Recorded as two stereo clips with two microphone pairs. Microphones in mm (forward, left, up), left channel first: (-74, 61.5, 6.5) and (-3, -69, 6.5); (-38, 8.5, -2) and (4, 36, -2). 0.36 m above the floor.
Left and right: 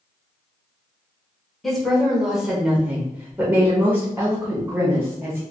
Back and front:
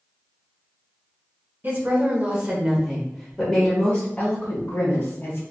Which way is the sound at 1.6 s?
30° left.